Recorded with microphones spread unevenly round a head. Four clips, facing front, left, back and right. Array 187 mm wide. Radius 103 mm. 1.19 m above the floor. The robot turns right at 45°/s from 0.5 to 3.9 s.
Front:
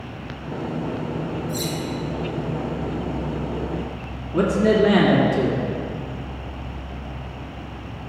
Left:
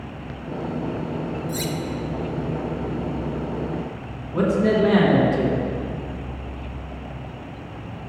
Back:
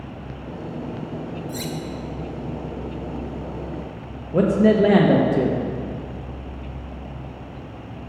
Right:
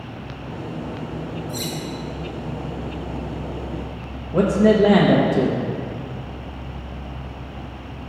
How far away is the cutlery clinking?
About 0.5 m.